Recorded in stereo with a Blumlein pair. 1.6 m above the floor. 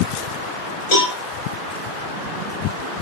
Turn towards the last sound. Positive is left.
turn(degrees=50)